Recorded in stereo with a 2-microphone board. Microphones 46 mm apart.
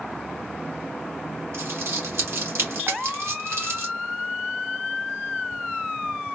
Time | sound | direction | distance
1.5 | crumpling | 75° right (ahead or behind) | 1.8 m
2.9 | a snare drum | 70° right (ahead or behind) | 1.1 m